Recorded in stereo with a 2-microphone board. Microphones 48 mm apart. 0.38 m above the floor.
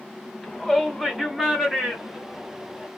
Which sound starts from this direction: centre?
A shout, at 0.4 s.